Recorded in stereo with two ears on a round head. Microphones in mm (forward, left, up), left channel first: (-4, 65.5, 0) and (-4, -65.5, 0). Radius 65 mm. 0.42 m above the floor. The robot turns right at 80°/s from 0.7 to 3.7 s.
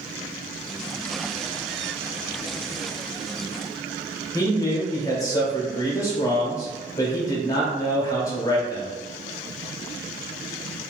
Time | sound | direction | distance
4.3 | a man speaking | 20° left (ahead or behind) | 0.9 m